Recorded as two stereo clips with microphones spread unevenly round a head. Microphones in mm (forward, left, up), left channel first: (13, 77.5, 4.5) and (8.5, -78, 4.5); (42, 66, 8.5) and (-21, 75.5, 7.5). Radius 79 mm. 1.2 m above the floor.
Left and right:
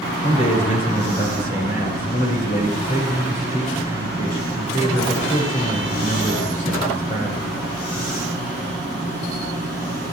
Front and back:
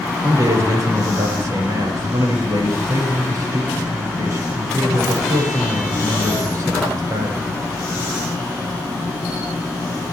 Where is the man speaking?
140° left, 5.5 m.